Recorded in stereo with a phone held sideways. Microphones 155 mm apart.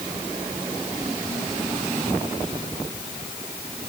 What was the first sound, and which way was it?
Only background noise.